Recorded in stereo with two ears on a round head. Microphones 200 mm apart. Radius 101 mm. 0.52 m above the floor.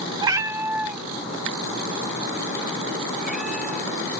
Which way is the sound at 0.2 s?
20° right (ahead or behind).